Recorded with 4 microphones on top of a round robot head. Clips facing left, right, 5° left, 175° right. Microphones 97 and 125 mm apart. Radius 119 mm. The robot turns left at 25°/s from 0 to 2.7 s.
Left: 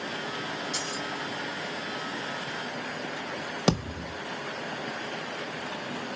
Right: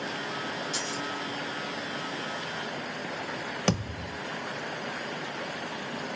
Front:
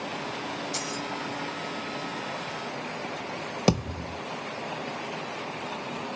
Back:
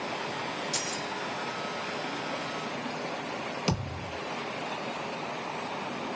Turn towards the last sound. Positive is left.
turn(degrees=20)